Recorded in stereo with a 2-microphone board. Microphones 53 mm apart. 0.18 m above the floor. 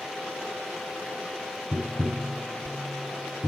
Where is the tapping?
50° right (ahead or behind), 1.8 m.